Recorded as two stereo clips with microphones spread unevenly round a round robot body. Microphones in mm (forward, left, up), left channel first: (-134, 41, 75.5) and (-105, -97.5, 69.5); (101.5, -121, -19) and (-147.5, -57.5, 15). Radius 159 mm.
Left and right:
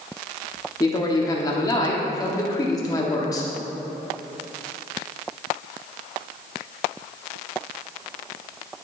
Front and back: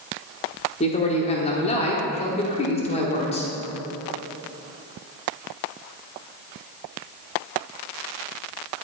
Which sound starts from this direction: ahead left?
A man speaking, at 0.8 s.